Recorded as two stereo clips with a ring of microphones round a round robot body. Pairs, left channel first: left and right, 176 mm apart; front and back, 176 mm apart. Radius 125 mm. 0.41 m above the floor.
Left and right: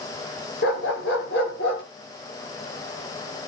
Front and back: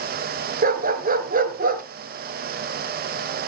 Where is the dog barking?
140° left, 2.0 m.